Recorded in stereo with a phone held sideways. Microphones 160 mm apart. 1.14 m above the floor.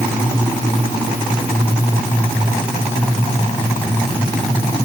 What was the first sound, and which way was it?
Only background noise.